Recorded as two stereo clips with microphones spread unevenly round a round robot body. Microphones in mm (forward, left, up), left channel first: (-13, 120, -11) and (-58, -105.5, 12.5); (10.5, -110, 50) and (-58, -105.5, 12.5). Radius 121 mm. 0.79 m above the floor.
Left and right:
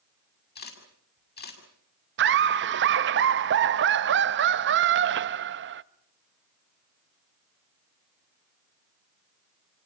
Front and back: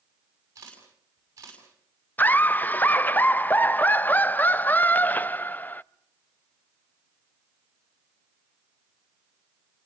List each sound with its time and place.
0.6 s a camera shutter: 125° left, 6.5 m
2.2 s laughter: 100° right, 0.7 m